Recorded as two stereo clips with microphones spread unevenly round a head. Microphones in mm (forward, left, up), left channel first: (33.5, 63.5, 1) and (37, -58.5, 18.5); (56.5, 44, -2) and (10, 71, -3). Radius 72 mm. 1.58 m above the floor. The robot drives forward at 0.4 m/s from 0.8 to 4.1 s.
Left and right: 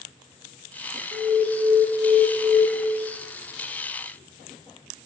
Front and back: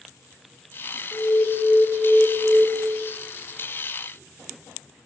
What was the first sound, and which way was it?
An alarm, 85° right.